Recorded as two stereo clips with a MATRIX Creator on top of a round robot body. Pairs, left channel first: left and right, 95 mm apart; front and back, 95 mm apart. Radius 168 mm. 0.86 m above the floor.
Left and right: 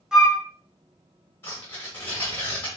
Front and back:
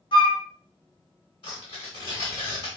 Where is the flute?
10° right, 1.5 m.